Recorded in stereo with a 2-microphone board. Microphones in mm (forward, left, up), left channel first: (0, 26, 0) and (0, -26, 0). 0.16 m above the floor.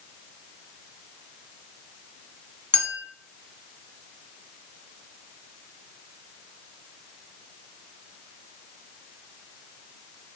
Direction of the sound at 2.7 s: 20° left (ahead or behind).